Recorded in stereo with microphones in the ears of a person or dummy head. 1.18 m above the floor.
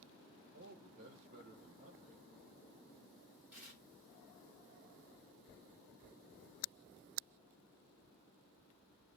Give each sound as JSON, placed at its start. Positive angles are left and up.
{"t": 0.5, "sound": "a man speaking", "side_deg": -50, "distance_m": 1.1}
{"t": 3.5, "sound": "tearing paper", "side_deg": -5, "distance_m": 2.5}